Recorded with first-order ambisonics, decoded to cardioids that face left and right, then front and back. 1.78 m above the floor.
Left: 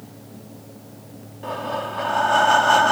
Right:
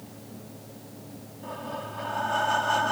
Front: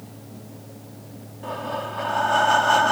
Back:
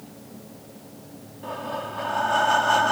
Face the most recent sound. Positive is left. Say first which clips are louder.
# left 9 dB, front 2 dB
turn(degrees=75)